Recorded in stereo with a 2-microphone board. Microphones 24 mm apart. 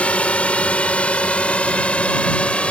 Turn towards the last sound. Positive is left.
turn(degrees=55)  # may be behind; listen again after turning